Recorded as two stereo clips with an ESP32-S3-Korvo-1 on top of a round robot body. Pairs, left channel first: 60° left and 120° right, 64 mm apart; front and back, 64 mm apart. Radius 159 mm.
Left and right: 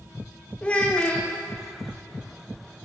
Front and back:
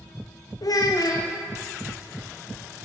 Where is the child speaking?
10° right, 0.7 m.